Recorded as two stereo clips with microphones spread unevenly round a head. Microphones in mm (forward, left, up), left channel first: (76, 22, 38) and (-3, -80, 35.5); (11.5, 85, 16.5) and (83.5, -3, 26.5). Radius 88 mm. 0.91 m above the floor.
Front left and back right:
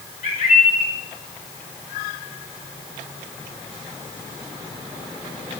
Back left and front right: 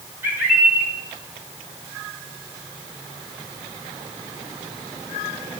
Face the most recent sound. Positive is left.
turn(degrees=20)